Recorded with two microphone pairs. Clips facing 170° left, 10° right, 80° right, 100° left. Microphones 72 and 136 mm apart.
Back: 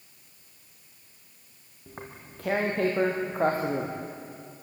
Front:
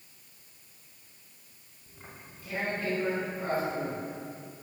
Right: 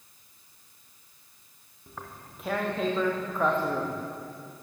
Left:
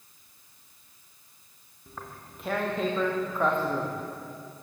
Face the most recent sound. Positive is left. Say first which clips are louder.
# back 6 dB, even
turn(degrees=-170)